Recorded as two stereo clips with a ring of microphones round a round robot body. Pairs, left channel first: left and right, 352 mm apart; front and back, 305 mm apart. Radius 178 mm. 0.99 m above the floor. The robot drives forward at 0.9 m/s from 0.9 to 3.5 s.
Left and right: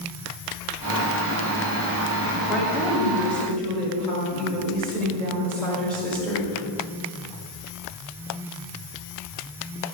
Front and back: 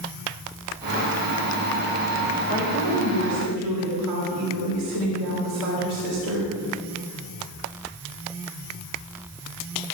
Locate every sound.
2.5 s a woman speaking: 175° left, 2.5 m